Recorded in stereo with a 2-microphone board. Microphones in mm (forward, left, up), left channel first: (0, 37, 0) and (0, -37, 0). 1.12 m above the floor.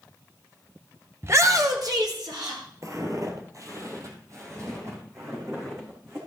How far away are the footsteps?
About 1.5 m.